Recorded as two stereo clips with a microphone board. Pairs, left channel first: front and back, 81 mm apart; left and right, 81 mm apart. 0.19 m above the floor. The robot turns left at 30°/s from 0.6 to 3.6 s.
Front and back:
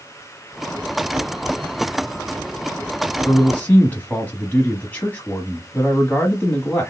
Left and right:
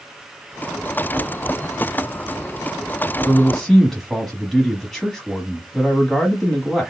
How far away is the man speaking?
About 1.0 m.